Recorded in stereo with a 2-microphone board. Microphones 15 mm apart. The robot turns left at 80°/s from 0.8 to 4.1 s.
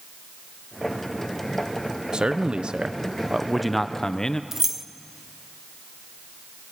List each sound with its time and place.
2.1 s a man speaking: 60° right, 0.8 m; by 4.4 s 140° left, 0.8 m
4.5 s keys jangling: 20° right (ahead or behind), 0.6 m